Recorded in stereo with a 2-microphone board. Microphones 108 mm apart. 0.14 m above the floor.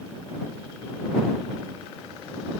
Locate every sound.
Only background noise.